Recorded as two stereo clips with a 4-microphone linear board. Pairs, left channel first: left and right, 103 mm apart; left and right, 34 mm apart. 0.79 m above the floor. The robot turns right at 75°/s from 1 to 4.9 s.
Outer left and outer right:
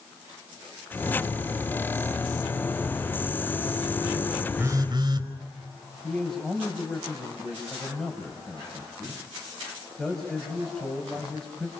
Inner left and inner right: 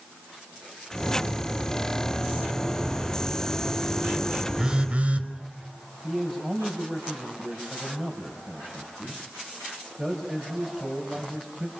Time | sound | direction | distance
4.6 | a phone buzzing | 20° right (ahead or behind) | 4.5 m
6.0 | a man speaking | 5° left (ahead or behind) | 5.5 m